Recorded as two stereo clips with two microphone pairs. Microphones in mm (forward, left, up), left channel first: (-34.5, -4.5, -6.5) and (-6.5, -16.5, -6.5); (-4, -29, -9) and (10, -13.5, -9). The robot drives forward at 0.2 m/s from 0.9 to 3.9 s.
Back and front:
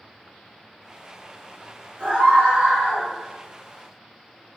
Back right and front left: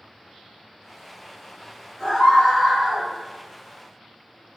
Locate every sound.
2.0 s a scream: 35° right, 1.7 m; by 3.1 s 40° right, 1.6 m